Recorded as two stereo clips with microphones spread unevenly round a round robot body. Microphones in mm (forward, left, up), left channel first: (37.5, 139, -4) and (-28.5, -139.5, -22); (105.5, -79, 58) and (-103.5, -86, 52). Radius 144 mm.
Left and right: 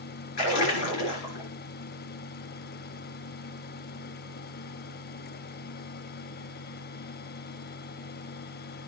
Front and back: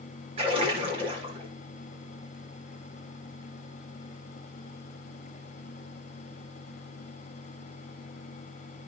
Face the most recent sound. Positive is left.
turn(degrees=110)